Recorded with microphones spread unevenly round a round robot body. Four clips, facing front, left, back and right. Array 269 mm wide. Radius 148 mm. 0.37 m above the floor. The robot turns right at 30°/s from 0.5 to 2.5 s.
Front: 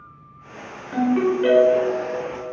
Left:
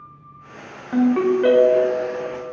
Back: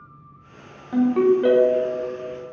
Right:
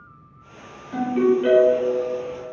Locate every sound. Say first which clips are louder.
0.9 s a ringtone: left 2 dB, back 2 dB; 70° left, 0.8 m; by 2.1 s 105° left, 0.8 m